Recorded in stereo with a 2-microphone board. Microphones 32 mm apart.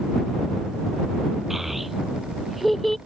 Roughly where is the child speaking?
Centre.